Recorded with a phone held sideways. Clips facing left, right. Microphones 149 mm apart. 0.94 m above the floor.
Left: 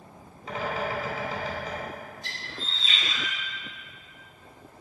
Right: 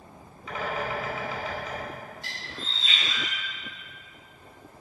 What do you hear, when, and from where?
0.5 s a bird: 35° left (ahead or behind), 4 m
2.2 s a bird: 85° right, 4.5 m